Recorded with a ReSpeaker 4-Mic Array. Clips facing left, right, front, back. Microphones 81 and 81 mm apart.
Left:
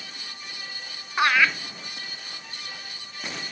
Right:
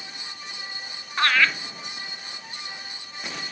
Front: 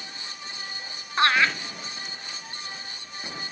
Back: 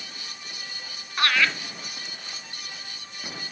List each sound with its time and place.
1.2 s laughter: 25° left, 1.7 m